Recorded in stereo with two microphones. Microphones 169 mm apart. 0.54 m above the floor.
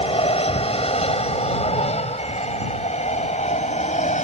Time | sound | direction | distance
0.0 | an aircraft | 35° left (ahead or behind) | ?